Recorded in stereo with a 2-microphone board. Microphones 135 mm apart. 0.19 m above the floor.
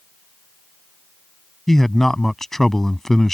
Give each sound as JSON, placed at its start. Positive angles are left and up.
{"t": 1.7, "sound": "a man speaking", "side_deg": 5}